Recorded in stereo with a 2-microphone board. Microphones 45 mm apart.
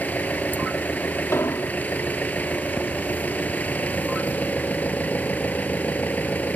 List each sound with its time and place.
0.0 s an engine running: 35° left (ahead or behind)
1.3 s an explosion: 75° left (ahead or behind)